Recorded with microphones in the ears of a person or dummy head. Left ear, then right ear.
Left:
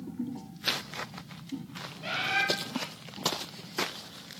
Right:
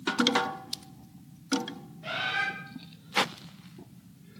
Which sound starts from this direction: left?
A bird, at 2.0 s.